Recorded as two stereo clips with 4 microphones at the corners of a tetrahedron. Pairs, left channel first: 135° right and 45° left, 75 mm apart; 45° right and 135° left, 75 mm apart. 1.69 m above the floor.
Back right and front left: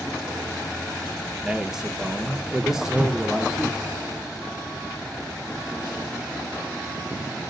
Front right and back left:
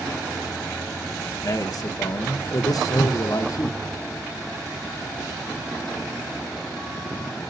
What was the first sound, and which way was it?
A man speaking, 35° right.